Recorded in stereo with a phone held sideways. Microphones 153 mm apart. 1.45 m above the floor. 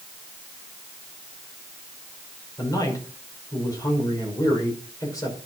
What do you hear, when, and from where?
2.6 s a man speaking: 25° left (ahead or behind), 5 m